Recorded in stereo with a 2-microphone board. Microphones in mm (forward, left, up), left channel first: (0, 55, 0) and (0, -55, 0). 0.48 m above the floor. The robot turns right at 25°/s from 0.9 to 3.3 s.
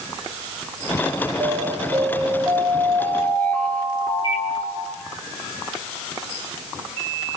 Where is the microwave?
50° left (ahead or behind), 3 m.